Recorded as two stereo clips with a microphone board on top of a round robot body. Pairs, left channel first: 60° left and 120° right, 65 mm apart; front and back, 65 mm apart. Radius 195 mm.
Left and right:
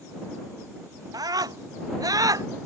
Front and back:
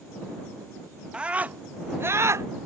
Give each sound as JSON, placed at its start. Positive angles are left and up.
{"t": 1.1, "sound": "a scream", "azimuth_deg": -105}